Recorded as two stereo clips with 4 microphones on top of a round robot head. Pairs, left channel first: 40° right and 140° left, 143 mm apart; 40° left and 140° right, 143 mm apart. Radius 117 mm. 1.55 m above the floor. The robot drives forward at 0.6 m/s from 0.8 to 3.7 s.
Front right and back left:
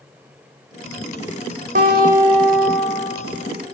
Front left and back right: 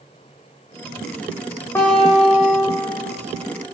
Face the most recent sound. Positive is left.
turn(degrees=140)